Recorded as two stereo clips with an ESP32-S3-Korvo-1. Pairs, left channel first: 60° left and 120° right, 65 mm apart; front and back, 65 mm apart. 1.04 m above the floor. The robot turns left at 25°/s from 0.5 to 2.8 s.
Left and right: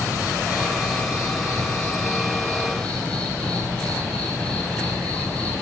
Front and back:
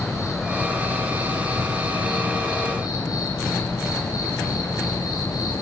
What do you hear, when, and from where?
0.0 s an insect: 40° left, 9 m; by 5.6 s 15° right, 9 m